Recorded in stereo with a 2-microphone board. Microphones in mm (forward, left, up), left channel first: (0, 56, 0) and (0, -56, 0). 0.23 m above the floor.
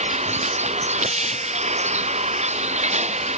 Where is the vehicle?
80° right; by 3.4 s 85° right.